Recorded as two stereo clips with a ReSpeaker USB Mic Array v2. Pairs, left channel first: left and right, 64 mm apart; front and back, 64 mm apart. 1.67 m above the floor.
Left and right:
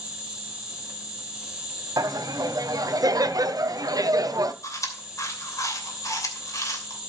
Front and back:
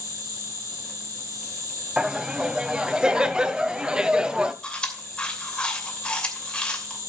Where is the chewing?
75° left, 2.5 m.